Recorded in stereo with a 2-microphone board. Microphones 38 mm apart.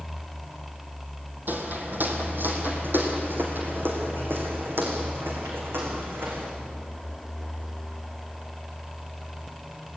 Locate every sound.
1.5 s footsteps: 55° right (ahead or behind), 3.5 m; by 6.5 s 75° right (ahead or behind), 6.5 m